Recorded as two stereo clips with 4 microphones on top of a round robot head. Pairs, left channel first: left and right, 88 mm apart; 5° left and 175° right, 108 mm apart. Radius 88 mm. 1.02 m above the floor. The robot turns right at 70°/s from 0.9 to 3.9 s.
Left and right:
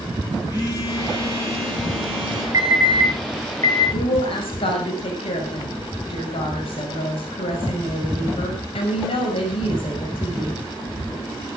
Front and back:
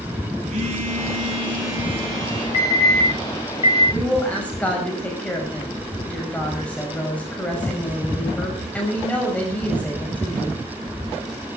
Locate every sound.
0.5 s a phone buzzing: 160° right, 6 m; by 2.4 s 55° right, 6 m
2.5 s an alarm: 40° right, 8.5 m; by 3.8 s 50° left, 8.5 m
3.9 s a woman speaking: 80° left, 6 m